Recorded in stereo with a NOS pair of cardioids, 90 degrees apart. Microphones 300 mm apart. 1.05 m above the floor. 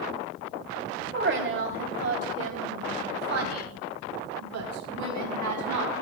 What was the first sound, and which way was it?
A woman speaking, 40° right.